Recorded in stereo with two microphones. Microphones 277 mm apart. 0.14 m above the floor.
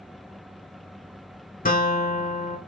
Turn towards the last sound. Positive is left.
turn(degrees=30)  # may be behind; listen again after turning